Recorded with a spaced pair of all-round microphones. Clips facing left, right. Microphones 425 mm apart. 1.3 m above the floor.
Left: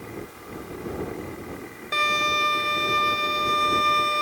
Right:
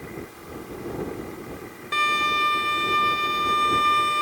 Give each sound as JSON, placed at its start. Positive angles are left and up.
{"t": 1.9, "sound": "a violin", "side_deg": -10}